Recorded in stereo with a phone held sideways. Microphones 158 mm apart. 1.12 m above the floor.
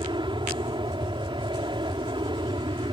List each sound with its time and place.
0.0 s an aircraft: 30° right (ahead or behind)